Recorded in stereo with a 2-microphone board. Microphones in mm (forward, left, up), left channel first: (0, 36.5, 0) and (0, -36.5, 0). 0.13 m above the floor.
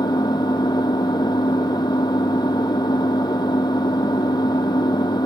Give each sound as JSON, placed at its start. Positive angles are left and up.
{"t": 0.0, "sound": "an engine running", "side_deg": 75, "distance_m": 1.5}